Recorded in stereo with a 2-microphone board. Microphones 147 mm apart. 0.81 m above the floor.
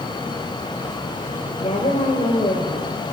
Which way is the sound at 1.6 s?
50° left (ahead or behind).